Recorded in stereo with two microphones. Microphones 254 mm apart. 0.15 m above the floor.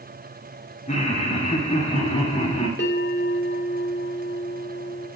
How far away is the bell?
About 6.5 m.